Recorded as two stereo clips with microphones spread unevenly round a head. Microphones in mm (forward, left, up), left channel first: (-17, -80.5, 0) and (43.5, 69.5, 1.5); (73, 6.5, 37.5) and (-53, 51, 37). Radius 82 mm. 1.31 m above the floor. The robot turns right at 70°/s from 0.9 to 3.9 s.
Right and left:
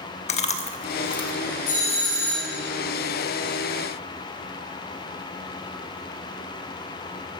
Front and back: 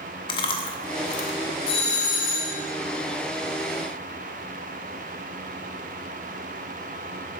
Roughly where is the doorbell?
Right.